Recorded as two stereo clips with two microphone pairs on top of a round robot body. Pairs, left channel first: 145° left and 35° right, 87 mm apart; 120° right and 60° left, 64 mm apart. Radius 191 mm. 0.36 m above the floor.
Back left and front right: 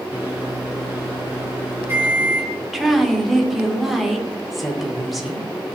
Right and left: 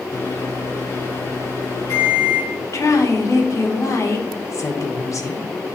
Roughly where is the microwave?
Right.